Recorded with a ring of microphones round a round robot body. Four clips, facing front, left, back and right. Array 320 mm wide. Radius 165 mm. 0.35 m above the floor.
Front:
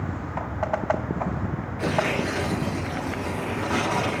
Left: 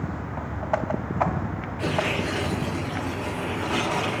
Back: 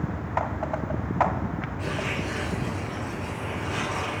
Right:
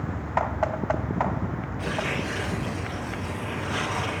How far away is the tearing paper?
About 7 m.